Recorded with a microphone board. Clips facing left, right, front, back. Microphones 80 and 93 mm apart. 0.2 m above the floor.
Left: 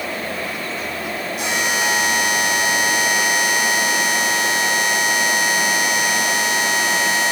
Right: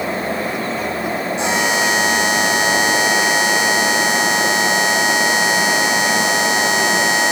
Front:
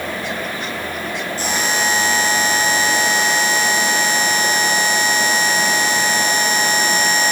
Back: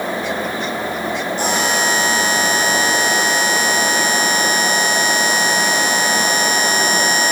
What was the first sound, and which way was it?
A buzzer, 155° right.